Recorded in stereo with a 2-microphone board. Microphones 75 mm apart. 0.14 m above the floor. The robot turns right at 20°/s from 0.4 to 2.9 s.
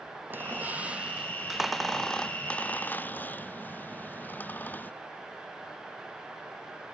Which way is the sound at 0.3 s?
25° right (ahead or behind).